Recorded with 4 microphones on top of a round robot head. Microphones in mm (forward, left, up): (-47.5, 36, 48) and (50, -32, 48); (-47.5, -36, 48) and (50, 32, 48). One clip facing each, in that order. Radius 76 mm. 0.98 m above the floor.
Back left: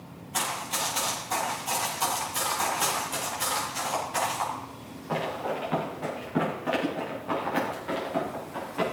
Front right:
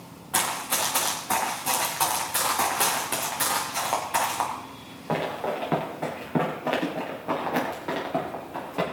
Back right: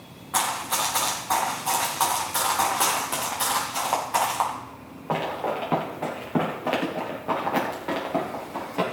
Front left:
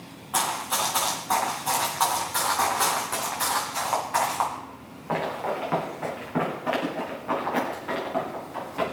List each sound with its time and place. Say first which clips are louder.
0.3 s running footsteps: front right 3 dB, back right 1 dB; 50° right, 4.5 m; by 8.8 s 95° right, 6.5 m